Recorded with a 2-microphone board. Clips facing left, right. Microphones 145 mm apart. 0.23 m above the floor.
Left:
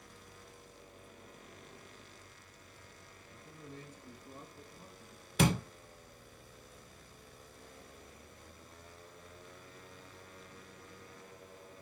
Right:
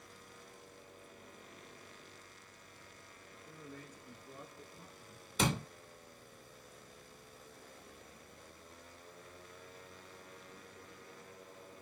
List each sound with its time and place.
3.3 s a man speaking: 20° left (ahead or behind), 2.5 m; by 5.3 s 40° left (ahead or behind), 3.5 m
5.4 s a door slam: 60° left (ahead or behind), 2.5 m